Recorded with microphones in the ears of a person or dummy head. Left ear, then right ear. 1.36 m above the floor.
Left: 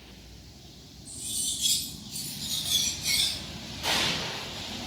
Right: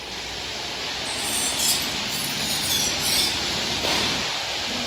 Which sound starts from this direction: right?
Cutlery clinking, at 1.1 s.